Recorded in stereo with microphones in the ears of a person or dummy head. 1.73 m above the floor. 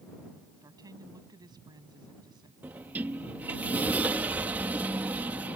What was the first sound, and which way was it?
A woman speaking, 20° right (ahead or behind).